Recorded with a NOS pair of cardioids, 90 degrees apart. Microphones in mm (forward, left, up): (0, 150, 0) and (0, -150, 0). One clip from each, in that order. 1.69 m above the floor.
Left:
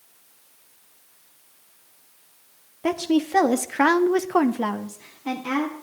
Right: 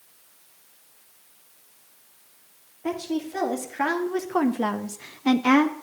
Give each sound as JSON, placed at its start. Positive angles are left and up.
{"t": 2.8, "sound": "a woman speaking", "azimuth_deg": 65, "distance_m": 1.1}